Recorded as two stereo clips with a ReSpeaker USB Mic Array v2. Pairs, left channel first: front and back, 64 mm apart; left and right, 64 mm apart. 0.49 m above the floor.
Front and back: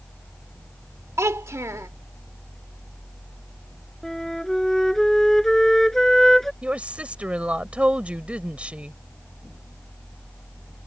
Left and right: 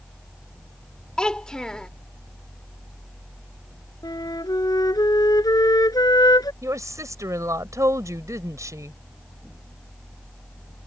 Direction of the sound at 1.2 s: 165° left.